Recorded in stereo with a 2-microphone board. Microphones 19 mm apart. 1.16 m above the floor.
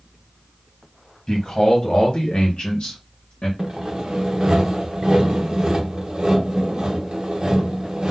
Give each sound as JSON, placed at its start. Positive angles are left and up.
{"t": 1.3, "sound": "a man speaking", "side_deg": 35, "distance_m": 1.2}
{"t": 3.6, "sound": "sawing", "side_deg": -45, "distance_m": 0.8}